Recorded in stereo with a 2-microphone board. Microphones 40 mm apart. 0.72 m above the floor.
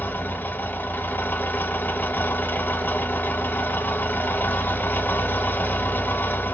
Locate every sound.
0.0 s an engine running: 60° left (ahead or behind), 0.9 m